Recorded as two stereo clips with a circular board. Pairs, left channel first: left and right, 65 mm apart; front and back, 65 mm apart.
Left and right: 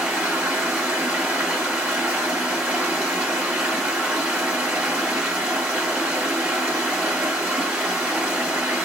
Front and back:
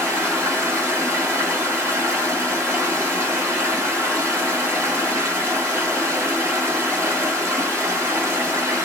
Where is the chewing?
No chewing in this recording.